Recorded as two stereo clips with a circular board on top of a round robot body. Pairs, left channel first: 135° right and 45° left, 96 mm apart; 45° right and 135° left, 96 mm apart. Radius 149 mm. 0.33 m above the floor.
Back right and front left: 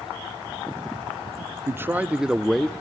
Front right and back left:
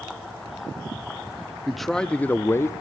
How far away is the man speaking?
About 0.8 m.